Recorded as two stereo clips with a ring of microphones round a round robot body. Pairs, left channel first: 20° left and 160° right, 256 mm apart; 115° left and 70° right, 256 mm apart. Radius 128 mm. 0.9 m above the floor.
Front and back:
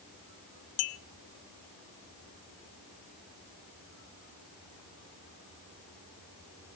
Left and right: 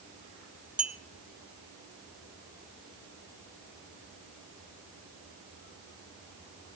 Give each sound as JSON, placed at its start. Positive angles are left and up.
{"t": 0.8, "sound": "a clink", "azimuth_deg": 20, "distance_m": 0.9}